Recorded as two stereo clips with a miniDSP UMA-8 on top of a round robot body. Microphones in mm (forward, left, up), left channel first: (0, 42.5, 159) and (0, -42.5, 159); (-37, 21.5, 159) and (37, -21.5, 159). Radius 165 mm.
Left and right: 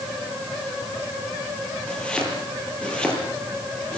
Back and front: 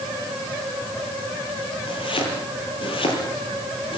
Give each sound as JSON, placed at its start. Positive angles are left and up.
{"t": 1.9, "sound": "chopping", "azimuth_deg": 170, "distance_m": 7.5}